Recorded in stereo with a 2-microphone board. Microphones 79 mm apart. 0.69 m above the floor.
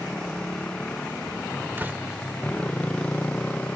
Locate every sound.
0.0 s a motorcycle: 10° left (ahead or behind); by 3.8 s 15° left (ahead or behind)
1.8 s a door slam: 25° right (ahead or behind)